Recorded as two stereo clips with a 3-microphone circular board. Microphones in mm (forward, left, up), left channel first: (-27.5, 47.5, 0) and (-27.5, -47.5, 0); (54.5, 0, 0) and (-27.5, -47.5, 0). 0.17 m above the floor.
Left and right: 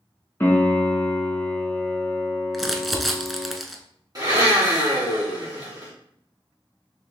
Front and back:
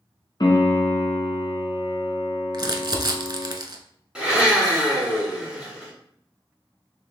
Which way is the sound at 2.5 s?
Straight behind.